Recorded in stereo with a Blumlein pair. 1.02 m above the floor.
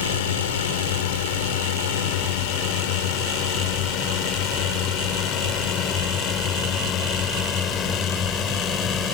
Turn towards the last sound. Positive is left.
turn(degrees=20)